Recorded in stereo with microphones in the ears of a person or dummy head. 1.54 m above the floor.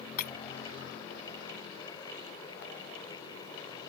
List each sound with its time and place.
0.2 s breaking glass: 50° left (ahead or behind)